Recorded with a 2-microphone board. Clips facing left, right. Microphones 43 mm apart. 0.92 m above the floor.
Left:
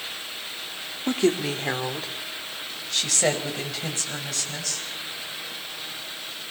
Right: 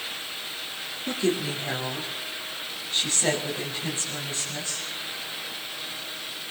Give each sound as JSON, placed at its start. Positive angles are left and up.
{"t": 1.1, "sound": "a woman speaking", "side_deg": 60, "distance_m": 2.5}